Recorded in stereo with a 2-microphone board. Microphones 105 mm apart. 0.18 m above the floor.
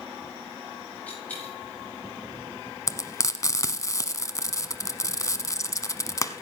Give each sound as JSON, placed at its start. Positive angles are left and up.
{"t": 1.1, "sound": "a dropped coin", "side_deg": 15, "distance_m": 9.5}
{"t": 2.9, "sound": "frying", "side_deg": 35, "distance_m": 1.0}